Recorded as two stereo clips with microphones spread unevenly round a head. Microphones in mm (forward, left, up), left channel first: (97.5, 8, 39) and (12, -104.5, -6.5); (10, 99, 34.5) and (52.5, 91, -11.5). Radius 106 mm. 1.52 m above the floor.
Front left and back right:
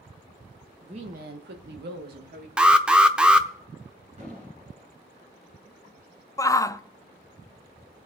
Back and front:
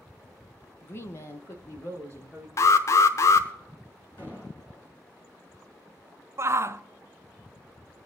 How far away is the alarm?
About 0.7 m.